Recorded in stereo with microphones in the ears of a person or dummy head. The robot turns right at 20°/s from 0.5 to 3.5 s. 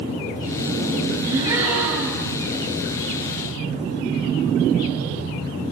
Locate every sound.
1.3 s a gasp: 15° right (ahead or behind), 4.5 m; by 2.4 s 5° left (ahead or behind), 4.5 m